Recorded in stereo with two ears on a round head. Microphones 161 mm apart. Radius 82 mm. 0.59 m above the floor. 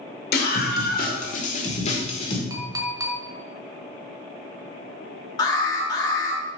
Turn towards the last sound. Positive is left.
turn(degrees=20)  # may be behind; listen again after turning